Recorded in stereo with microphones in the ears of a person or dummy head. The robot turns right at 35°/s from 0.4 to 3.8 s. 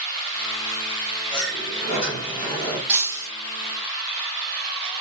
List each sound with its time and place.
1.3 s a sliding door: 110° left, 4 m; by 2.8 s 160° left, 4 m
2.9 s breaking glass: 5° right (ahead or behind), 4 m; by 3.3 s 20° right (ahead or behind), 4 m